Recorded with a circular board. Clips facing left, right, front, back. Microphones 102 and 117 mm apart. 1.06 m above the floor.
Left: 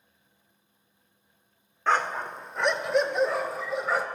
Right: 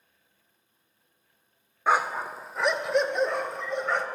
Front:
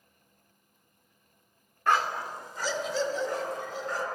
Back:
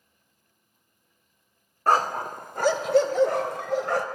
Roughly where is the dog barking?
Behind.